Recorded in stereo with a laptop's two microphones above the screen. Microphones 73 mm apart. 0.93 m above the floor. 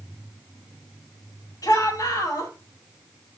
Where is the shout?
65° left (ahead or behind), 6 m.